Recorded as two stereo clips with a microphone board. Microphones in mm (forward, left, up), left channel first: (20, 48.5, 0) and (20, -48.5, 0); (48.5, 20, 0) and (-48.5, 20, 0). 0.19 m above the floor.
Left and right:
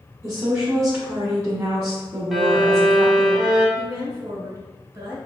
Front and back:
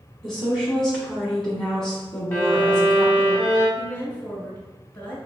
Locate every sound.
0.2 s a woman speaking: 85° right, 1.2 m
2.3 s a violin: 15° right, 1.1 m
3.8 s a woman speaking: 70° right, 1.7 m